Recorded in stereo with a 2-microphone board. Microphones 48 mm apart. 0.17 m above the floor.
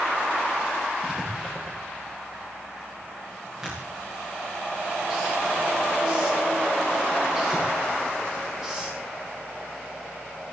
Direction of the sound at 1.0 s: 15° right (ahead or behind).